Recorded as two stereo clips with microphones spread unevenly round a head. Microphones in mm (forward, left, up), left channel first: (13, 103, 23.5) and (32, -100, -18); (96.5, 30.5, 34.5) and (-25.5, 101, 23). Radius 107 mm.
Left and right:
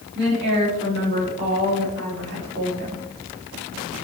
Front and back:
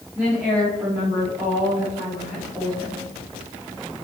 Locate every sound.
0.1 s a woman speaking: 125° right, 4.5 m